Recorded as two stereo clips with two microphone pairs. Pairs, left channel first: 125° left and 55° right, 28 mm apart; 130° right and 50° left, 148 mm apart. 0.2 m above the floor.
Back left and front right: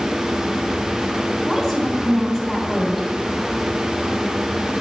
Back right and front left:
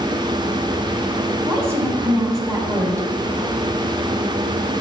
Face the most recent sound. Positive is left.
turn(degrees=55)